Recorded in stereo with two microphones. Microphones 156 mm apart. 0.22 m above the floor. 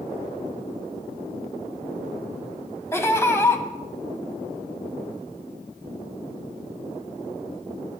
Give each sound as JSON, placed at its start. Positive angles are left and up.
{"t": 2.9, "sound": "laughter", "side_deg": 15, "distance_m": 1.2}